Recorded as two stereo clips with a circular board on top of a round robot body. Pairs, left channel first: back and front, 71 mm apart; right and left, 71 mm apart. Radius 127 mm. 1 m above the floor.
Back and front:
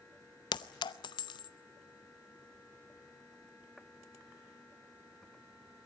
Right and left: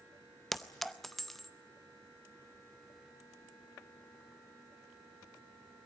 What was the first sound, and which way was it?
A clink, 175° right.